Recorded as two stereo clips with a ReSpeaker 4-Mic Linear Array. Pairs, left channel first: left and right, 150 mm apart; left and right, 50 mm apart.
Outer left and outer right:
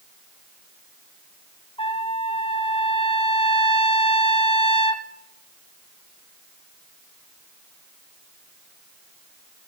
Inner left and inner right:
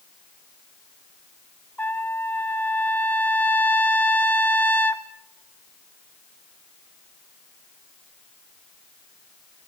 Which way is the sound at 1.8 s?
35° left (ahead or behind).